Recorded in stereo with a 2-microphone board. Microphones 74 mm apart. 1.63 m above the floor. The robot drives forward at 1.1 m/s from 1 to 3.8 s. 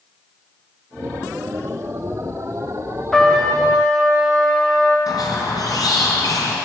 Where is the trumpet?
5° left (ahead or behind), 1.1 m.